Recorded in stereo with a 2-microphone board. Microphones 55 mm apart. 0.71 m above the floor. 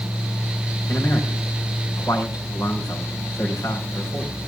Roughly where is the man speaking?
Left.